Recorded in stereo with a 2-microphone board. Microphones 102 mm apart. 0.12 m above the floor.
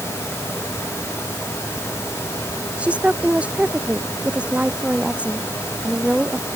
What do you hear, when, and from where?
2.8 s a woman speaking: 10° right (ahead or behind)